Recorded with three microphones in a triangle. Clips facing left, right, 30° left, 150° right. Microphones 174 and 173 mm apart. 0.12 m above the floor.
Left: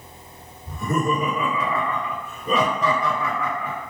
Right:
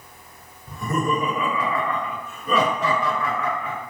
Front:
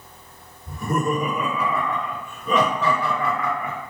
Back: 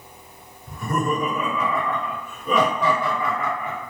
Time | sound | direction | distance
0.7 | laughter | 50° left | 1.9 m